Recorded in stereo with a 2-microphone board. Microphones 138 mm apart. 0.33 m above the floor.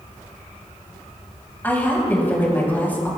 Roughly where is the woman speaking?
Centre.